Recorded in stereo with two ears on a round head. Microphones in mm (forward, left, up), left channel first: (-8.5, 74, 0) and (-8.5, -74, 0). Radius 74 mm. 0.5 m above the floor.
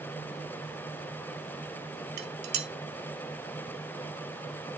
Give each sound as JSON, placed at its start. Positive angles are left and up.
{"t": 2.2, "sound": "dishes clattering", "side_deg": -70, "distance_m": 1.6}